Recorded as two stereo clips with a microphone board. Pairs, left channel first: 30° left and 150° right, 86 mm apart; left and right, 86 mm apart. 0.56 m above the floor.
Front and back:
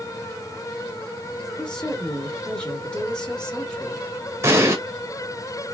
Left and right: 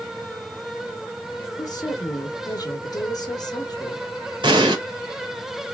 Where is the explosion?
95° right, 1.5 m.